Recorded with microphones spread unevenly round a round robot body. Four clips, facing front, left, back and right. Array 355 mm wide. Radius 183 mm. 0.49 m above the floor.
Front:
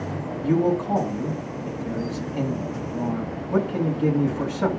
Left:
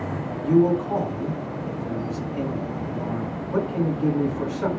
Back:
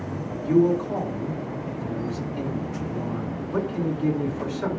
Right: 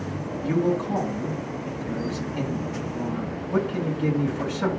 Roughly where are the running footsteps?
I don't hear running footsteps.